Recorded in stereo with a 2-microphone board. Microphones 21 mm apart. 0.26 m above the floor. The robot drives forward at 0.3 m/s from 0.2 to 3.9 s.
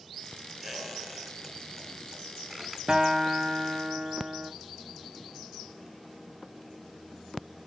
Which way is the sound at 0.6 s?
Centre (ahead or behind).